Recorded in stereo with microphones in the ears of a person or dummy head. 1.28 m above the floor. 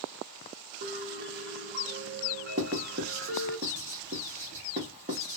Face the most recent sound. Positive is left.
turn(degrees=-35)  # may be behind; listen again after turning